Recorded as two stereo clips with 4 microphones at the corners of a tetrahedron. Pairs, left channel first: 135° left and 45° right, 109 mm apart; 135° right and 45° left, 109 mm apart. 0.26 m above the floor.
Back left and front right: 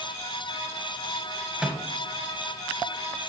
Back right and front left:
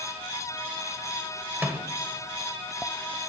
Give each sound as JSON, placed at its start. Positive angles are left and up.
{"t": 1.6, "sound": "a microwave", "azimuth_deg": 20, "distance_m": 1.1}